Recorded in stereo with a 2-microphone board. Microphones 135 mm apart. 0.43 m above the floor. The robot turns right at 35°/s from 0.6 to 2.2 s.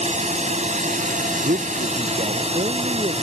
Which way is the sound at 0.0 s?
115° right.